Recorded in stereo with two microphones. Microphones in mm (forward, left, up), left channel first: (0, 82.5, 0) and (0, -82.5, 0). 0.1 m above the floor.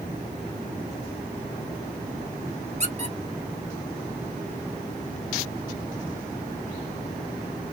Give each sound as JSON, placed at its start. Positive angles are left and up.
{"t": 2.8, "sound": "a squeak", "side_deg": -45, "distance_m": 0.9}